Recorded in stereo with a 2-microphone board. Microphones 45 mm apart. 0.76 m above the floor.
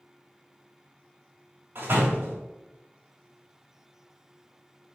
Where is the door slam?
60° right (ahead or behind), 3 m.